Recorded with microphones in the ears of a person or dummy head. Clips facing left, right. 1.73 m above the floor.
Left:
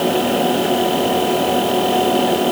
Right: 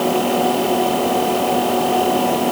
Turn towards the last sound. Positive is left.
No sound to turn to.